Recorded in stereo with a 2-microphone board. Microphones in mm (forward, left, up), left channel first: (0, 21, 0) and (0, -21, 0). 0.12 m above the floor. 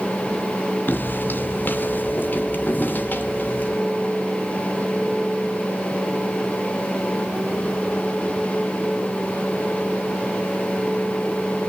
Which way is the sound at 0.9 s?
55° left (ahead or behind).